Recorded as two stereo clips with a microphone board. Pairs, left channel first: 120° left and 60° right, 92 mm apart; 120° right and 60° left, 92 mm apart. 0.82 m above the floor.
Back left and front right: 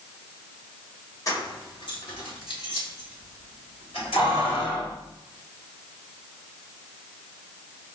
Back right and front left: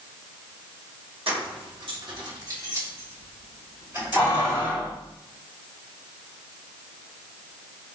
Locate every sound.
1.3 s keys jangling: 70° left, 0.9 m; by 4.9 s 130° left, 3 m